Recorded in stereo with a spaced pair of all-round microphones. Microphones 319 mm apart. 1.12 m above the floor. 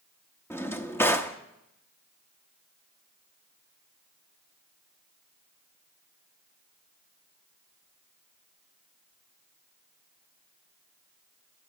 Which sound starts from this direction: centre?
A drawer, at 0.5 s.